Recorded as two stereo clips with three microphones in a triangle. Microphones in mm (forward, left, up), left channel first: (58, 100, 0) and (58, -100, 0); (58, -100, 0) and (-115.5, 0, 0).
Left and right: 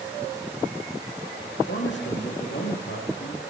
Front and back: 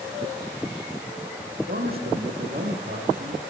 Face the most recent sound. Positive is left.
turn(degrees=110)